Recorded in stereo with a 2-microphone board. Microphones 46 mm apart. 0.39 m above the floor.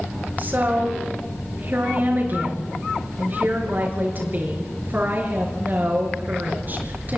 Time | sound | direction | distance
0.4 | a woman speaking | 45° right (ahead or behind) | 6.5 m